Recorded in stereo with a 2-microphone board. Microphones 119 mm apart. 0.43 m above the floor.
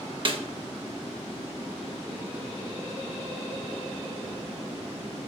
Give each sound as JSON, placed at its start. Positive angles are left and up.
{"t": 0.2, "sound": "a snare drum", "side_deg": -45, "distance_m": 0.5}